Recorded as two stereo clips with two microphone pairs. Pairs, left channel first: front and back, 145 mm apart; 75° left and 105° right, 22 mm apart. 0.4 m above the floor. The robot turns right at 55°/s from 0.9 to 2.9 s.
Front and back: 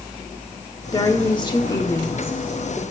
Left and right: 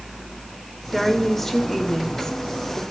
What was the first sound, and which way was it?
A woman speaking, 15° right.